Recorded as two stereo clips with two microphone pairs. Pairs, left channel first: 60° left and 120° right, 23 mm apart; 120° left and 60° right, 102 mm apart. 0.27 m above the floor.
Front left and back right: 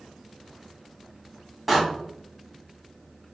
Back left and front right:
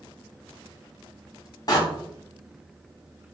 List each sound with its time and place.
1.7 s a door slam: 155° left, 1.7 m